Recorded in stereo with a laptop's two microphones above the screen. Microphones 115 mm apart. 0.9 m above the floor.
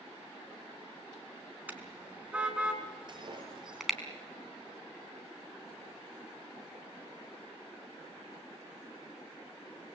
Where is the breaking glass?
40° right (ahead or behind), 6 m.